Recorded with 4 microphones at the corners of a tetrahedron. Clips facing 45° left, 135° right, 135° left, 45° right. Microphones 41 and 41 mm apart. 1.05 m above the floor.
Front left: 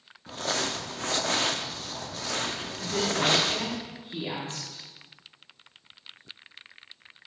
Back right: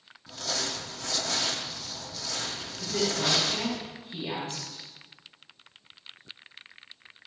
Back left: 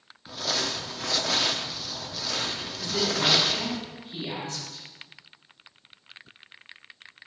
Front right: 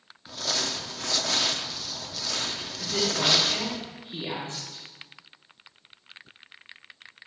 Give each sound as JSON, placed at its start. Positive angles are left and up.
{"t": 0.3, "sound": "crumpling", "azimuth_deg": 55, "distance_m": 0.6}
{"t": 2.8, "sound": "a woman speaking", "azimuth_deg": 5, "distance_m": 3.0}